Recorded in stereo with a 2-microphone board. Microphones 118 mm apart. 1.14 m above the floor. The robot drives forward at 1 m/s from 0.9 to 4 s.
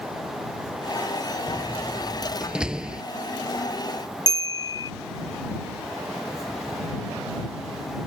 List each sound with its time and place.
1.5 s a door slam: 5° right (ahead or behind)
4.3 s a bell: 35° left (ahead or behind)